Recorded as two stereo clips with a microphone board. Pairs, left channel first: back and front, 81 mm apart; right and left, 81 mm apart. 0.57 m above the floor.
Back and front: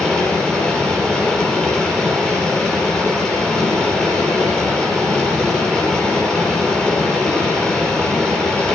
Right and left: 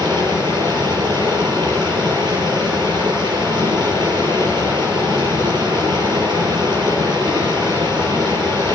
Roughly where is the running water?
Left.